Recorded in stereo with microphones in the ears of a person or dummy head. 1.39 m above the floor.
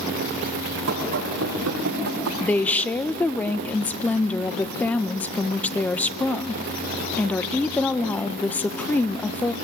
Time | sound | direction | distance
0.9 | running footsteps | 70° right (ahead or behind) | 6 m
2.4 | a woman speaking | 10° left (ahead or behind) | 0.8 m